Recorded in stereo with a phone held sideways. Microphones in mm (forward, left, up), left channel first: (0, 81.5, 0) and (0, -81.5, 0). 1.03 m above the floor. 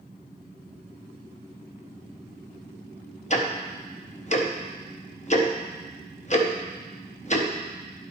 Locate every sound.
3.3 s ticking: 45° left (ahead or behind), 0.7 m